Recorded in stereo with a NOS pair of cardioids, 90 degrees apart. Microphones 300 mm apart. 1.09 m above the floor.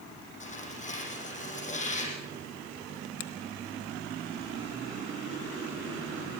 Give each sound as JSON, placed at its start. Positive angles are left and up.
{"t": 0.4, "sound": "tearing paper", "azimuth_deg": 25, "distance_m": 8.0}
{"t": 3.2, "sound": "a finger snap", "azimuth_deg": 65, "distance_m": 1.3}